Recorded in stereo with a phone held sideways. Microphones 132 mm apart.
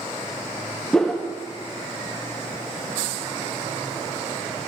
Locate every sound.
0.9 s a whoosh: 5° left (ahead or behind), 0.9 m